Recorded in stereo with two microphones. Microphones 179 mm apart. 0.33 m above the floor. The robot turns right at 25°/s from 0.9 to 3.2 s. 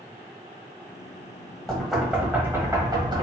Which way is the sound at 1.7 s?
5° left (ahead or behind).